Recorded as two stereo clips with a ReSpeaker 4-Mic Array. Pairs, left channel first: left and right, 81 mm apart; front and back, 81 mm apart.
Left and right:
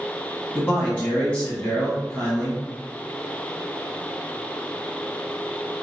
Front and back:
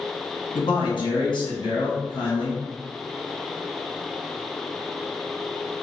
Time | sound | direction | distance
0.6 | a man speaking | 20° left | 1.3 m